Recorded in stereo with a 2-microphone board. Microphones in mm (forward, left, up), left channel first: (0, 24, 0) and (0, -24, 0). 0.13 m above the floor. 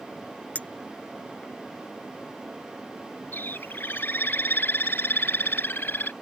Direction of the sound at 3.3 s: 50° left (ahead or behind).